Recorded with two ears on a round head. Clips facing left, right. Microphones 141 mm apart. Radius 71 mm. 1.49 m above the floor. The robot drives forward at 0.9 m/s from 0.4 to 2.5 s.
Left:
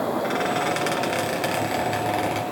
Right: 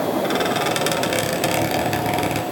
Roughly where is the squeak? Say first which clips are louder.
Right 3 dB; right.